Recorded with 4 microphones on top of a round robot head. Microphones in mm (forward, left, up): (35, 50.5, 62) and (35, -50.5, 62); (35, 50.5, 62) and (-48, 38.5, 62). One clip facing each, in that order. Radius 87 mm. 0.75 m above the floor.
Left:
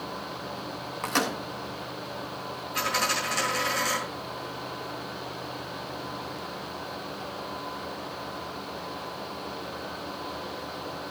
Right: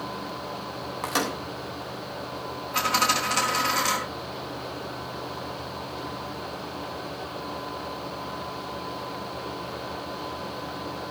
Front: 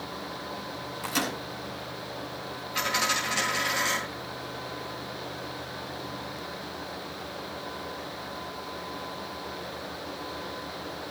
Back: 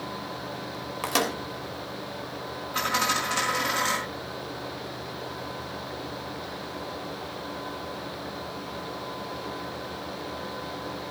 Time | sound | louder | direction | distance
1.0 | a microwave | even, back 4 dB | 175° right | 3 m
2.7 | a dropped coin | right 4 dB, back 2 dB | 120° right | 4.5 m